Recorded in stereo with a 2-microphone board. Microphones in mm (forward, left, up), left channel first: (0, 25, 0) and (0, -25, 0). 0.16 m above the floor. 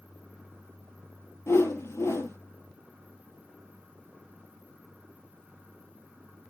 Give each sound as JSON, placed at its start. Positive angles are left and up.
{"t": 1.5, "sound": "a whoosh", "side_deg": 70, "distance_m": 3.5}